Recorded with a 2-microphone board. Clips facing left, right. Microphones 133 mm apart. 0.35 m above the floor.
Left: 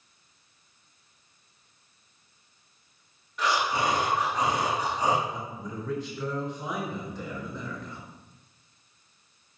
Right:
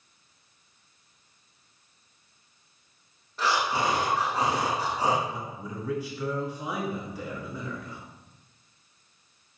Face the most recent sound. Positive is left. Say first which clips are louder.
# even
turn(degrees=-10)  # may be behind; listen again after turning